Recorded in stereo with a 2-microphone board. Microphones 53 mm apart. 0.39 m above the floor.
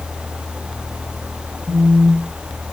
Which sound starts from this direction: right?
A phone buzzing, at 1.7 s.